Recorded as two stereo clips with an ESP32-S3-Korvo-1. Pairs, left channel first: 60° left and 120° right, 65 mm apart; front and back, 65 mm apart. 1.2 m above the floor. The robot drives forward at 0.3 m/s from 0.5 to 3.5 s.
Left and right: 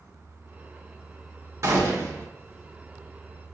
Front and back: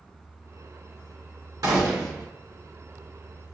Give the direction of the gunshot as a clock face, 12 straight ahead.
5 o'clock.